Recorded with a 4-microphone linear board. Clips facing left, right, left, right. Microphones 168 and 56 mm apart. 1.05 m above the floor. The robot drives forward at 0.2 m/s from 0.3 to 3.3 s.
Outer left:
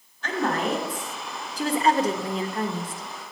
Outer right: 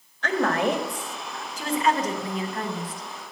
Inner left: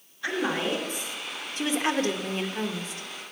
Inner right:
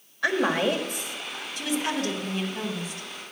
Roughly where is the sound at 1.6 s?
Left.